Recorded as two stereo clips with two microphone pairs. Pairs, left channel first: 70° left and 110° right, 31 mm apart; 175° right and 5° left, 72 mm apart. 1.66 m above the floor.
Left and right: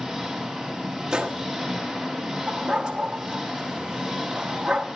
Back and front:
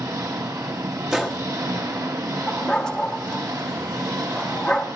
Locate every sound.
0.0 s an engine running: 25° right, 2.5 m
1.1 s a gunshot: 70° right, 1.1 m
2.5 s a dog barking: 105° right, 1.1 m